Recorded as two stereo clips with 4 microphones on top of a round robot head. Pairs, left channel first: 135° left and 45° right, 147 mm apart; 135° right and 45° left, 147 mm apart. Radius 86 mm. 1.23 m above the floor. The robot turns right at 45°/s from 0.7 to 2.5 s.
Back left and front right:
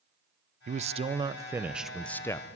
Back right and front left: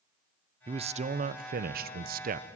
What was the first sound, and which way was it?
A man speaking, 10° right.